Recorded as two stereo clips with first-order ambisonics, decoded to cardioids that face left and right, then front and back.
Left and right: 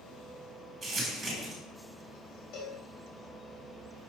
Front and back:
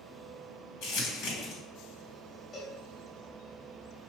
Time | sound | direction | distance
0.8 | crumpling | 15° right | 1.7 m
2.5 | a cowbell | 70° left | 1.6 m